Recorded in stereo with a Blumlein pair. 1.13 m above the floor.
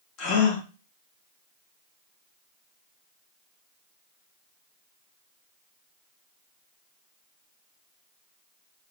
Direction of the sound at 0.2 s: 35° left.